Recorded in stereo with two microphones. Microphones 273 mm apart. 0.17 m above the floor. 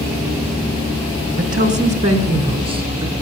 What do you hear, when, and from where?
1.4 s a woman speaking: 30° right (ahead or behind), 1.6 m; by 3.1 s 15° right (ahead or behind), 2.5 m